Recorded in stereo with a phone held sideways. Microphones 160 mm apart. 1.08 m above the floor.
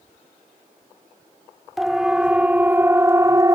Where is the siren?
Centre (ahead or behind); by 3.5 s 25° right (ahead or behind).